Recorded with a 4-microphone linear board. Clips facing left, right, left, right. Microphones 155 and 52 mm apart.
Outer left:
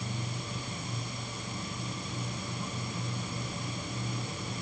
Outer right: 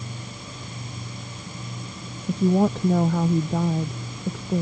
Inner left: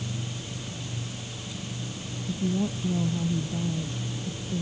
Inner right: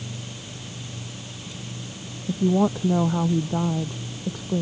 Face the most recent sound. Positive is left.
turn(degrees=-85)